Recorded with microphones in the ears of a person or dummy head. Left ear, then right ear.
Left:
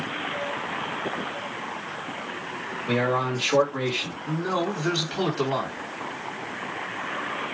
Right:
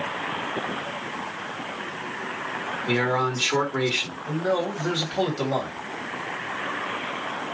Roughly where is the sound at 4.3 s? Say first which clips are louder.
Right 2 dB; centre.